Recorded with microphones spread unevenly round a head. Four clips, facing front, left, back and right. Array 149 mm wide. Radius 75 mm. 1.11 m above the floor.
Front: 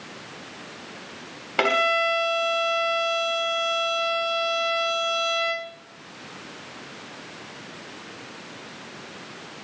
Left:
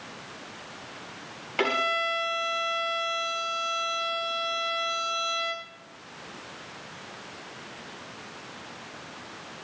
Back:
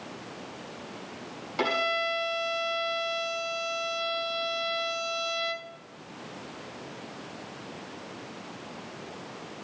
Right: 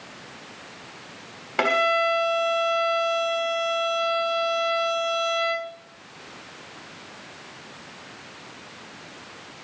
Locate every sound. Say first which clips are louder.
1.6 s a violin: right 6 dB, front 6 dB; 20° right, 3 m